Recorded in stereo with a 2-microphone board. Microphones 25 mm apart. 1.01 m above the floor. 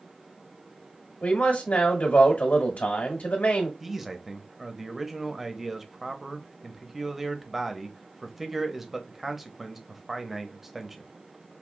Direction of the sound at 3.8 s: 5° right (ahead or behind).